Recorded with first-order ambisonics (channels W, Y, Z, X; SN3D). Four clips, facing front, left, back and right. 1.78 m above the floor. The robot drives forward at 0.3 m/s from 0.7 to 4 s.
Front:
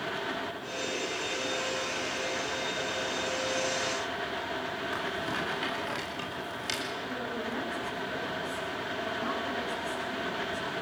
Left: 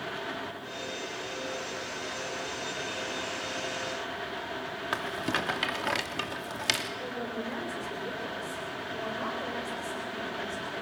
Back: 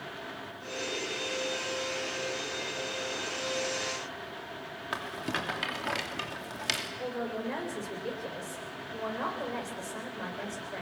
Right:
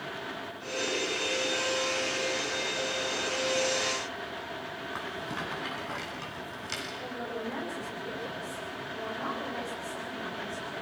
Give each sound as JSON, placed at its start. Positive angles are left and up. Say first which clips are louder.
{"t": 4.9, "sound": "a rattle", "louder": "left 7 dB, back 2 dB", "azimuth_deg": 110, "distance_m": 2.5}
{"t": 7.0, "sound": "a man speaking", "louder": "left 1 dB, even", "azimuth_deg": 165, "distance_m": 8.5}